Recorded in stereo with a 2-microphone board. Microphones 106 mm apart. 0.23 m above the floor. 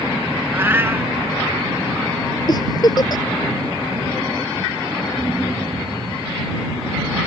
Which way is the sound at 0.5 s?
20° right (ahead or behind).